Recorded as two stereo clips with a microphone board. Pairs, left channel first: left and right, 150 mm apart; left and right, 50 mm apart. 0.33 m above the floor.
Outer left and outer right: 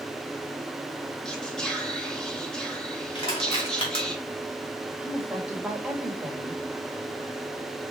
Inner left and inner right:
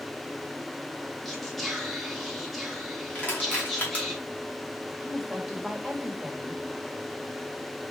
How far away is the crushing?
About 2.0 m.